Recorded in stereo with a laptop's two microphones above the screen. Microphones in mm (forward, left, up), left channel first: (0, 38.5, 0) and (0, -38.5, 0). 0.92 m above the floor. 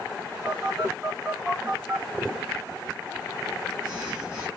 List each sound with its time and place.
0.5 s a phone buzzing: 15° right (ahead or behind), 1.1 m